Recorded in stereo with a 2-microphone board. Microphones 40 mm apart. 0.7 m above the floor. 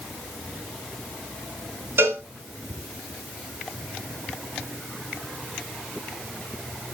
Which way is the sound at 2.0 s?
70° right (ahead or behind).